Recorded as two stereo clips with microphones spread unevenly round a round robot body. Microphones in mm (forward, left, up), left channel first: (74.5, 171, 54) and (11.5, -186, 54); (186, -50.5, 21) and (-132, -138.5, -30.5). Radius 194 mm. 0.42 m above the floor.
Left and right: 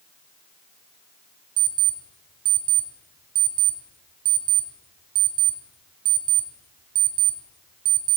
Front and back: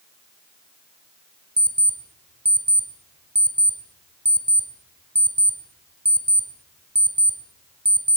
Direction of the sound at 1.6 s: 80° right.